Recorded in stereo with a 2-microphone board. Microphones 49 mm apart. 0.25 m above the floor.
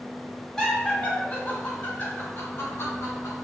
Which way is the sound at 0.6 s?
10° left (ahead or behind).